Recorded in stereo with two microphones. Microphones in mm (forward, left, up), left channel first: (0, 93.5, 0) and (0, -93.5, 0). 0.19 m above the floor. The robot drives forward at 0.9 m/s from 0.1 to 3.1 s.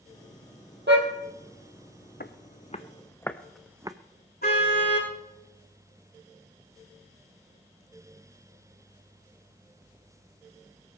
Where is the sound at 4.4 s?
60° left (ahead or behind), 7 m.